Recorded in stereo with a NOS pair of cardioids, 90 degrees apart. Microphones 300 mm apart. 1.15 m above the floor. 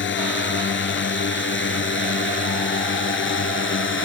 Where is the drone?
40° left; by 4.0 s 45° left.